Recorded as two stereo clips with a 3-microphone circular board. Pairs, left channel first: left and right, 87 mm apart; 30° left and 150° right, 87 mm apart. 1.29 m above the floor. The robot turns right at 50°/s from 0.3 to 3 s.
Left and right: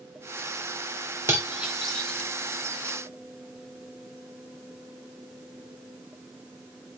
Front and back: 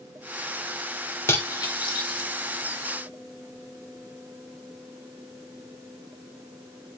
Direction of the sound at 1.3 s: 30° right.